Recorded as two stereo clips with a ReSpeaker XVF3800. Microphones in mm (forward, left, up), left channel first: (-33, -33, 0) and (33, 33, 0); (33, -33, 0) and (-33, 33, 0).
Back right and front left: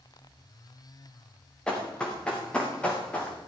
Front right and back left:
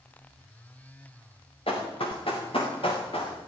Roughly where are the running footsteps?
Ahead right.